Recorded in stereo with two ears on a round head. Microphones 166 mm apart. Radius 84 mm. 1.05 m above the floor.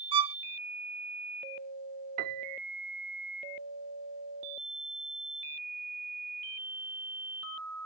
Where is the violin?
25° right (ahead or behind).